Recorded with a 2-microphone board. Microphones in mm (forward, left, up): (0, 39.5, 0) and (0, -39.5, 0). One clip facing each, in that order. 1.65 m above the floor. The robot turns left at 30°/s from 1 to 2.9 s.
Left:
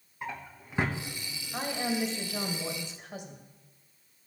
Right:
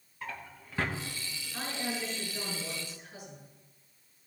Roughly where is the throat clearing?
I don't hear throat clearing.